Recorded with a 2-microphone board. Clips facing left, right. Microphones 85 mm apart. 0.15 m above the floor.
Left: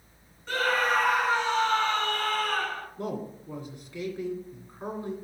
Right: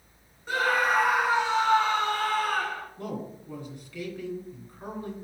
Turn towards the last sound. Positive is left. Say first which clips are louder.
# left 2 dB
turn(degrees=20)  # may be behind; listen again after turning